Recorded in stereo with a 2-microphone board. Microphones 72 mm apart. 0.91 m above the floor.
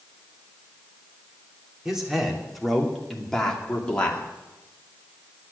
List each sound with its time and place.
1.9 s a man speaking: 10° right (ahead or behind), 3 m; by 4.3 s 20° left (ahead or behind), 2.5 m